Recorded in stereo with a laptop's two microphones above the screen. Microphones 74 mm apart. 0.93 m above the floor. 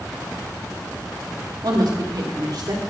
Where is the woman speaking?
65° right (ahead or behind), 1.8 m; by 2.8 s 70° right (ahead or behind), 2.5 m.